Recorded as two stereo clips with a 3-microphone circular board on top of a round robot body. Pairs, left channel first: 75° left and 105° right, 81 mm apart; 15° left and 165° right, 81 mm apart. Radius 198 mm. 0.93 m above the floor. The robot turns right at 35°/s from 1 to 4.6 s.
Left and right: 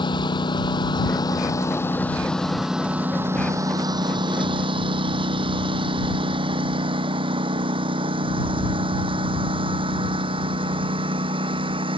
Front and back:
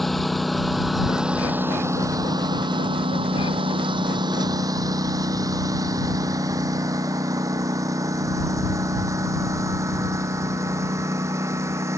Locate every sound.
0.0 s a lawn mower: 105° left; by 12.0 s 110° right